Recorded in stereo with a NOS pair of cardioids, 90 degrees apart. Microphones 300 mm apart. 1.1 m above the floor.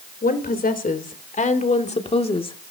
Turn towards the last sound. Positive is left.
turn(degrees=15)